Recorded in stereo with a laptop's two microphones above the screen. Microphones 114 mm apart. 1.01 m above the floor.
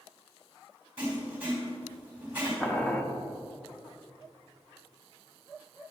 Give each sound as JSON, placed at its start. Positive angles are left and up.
{"t": 1.0, "sound": "writing", "side_deg": -15, "distance_m": 2.5}
{"t": 2.6, "sound": "boiling", "side_deg": 15, "distance_m": 0.7}